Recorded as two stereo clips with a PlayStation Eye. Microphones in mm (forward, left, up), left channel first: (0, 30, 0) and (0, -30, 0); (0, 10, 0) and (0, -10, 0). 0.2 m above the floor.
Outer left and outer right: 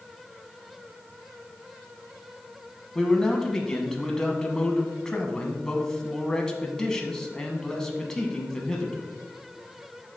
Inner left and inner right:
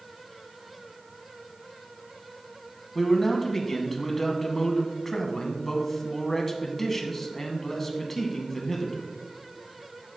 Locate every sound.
3.0 s a man speaking: 10° left (ahead or behind), 1.2 m